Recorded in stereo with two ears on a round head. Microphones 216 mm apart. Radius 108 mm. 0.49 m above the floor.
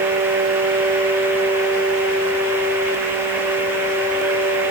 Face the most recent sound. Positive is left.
No sound to turn to.